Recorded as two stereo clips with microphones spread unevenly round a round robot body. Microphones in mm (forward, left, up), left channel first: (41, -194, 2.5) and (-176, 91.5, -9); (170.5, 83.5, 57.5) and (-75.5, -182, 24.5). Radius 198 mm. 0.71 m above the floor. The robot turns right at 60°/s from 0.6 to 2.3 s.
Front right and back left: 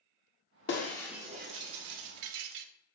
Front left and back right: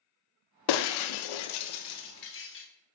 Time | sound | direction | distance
0.7 | breaking glass | 15° left | 0.6 m